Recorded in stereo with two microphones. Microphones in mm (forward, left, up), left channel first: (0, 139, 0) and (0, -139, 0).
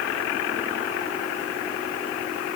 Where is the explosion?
No explosion in this recording.